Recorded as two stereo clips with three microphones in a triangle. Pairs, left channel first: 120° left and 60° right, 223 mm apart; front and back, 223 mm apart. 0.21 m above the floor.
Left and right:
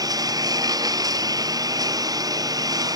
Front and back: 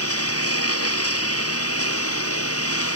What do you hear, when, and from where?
0.0 s a lawn mower: 15° left